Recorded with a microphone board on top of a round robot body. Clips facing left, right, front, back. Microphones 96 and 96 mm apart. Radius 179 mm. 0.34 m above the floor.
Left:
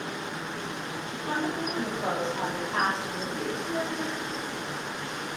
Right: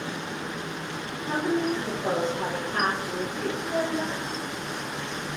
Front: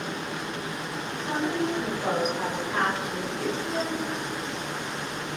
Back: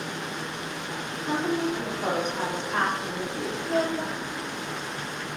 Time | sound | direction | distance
1.1 | a woman speaking | 110° left | 4.5 m
3.6 | a child speaking | 145° right | 1.6 m